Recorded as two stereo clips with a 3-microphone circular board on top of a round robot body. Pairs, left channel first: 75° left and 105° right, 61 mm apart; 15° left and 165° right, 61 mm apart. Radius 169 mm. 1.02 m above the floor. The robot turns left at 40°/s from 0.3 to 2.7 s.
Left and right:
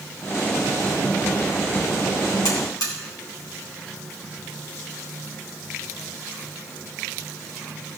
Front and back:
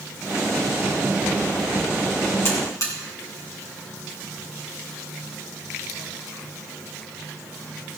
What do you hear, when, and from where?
2.5 s a buzzer: 65° left, 3.5 m; by 2.9 s 55° left, 3.5 m